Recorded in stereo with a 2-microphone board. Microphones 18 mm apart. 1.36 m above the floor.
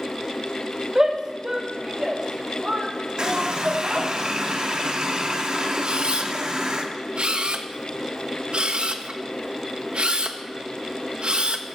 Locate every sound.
0.9 s a shout: 30° right (ahead or behind), 2.5 m; by 4.1 s 65° right (ahead or behind), 3 m
3.2 s a running tap: 50° right (ahead or behind), 2 m
5.8 s a camera shutter: 65° right (ahead or behind), 1.1 m